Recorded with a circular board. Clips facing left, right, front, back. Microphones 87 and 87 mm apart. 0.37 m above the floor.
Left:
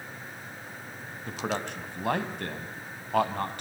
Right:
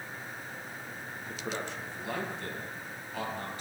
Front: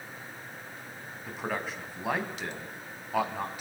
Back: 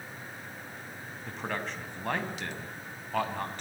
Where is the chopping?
No chopping in this recording.